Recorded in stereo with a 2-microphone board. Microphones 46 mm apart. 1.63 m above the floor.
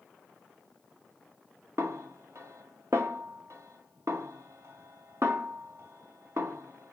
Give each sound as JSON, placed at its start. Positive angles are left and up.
{"t": 1.8, "sound": "a snare drum", "side_deg": -65, "distance_m": 0.8}